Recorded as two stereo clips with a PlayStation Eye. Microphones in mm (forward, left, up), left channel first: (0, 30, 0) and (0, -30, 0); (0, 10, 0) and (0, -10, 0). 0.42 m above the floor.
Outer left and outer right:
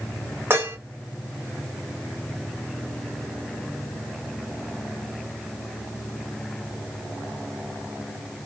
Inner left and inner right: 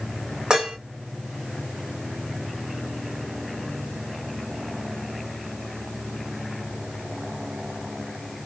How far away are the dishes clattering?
About 1.1 m.